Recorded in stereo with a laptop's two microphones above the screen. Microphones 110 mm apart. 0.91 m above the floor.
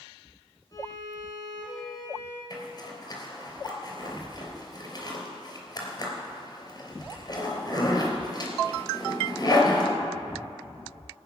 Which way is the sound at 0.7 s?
35° left (ahead or behind).